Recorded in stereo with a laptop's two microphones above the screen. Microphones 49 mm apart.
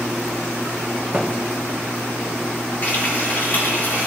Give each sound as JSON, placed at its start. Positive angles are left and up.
{"t": 1.1, "sound": "a thud", "side_deg": -20, "distance_m": 0.9}
{"t": 2.8, "sound": "frying", "side_deg": 50, "distance_m": 2.5}